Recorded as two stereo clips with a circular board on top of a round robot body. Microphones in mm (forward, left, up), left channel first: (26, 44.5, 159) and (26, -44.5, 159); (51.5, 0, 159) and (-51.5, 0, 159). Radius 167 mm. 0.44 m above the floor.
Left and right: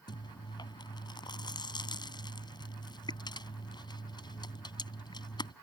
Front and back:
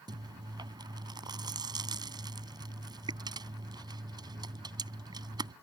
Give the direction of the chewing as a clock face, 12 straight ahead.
8 o'clock.